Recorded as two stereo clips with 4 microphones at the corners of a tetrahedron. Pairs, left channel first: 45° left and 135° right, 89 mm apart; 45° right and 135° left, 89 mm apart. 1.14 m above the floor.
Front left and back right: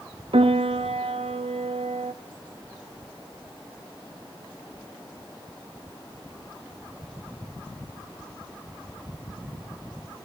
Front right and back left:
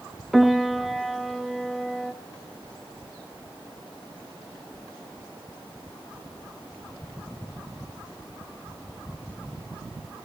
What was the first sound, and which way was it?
A piano, 135° right.